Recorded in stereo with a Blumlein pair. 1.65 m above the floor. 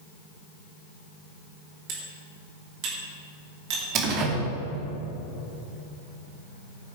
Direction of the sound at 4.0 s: 35° right.